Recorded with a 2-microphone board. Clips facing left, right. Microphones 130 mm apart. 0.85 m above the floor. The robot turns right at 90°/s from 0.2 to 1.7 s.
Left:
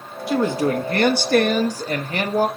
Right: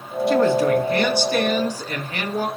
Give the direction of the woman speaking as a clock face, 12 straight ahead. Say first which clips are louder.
Right 3 dB; 12 o'clock.